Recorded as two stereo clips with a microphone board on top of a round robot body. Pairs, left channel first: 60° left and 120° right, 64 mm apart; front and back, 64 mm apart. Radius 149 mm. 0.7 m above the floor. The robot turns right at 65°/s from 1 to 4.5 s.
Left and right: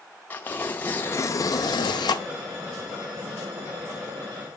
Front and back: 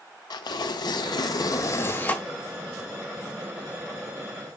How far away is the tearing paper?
About 0.6 m.